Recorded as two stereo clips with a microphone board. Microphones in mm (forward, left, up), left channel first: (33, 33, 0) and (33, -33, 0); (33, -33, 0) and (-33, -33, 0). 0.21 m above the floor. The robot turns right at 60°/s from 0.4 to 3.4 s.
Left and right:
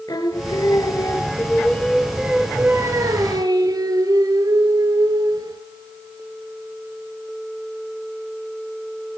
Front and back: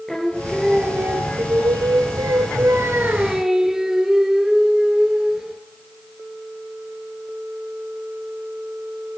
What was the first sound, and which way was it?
Singing, 85° left.